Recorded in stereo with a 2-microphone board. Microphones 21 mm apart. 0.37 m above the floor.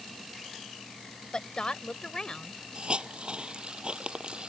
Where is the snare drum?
I don't hear a snare drum.